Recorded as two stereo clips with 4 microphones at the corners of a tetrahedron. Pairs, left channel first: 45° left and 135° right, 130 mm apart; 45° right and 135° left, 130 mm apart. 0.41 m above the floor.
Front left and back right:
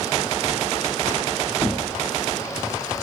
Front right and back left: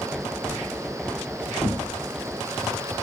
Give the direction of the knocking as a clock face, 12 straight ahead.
11 o'clock.